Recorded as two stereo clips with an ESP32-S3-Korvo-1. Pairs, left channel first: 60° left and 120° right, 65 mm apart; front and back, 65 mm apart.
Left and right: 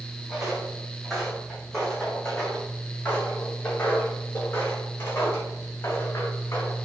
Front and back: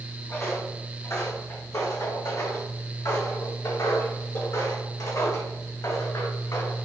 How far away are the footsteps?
About 4 m.